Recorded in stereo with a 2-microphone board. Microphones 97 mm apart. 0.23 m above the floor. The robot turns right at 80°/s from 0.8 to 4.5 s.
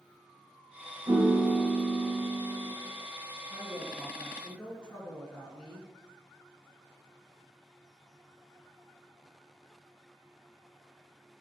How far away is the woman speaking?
About 3.5 m.